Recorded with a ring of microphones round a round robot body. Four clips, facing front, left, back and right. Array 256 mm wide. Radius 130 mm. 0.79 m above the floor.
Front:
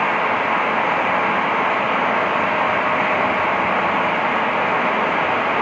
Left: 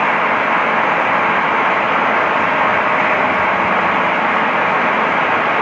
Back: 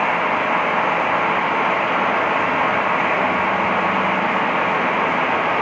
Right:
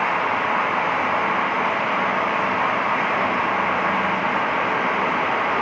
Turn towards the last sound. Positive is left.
No sound to turn to.